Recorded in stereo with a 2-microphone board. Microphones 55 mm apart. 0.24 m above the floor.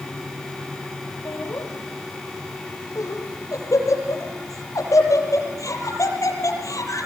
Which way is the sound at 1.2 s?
75° left (ahead or behind).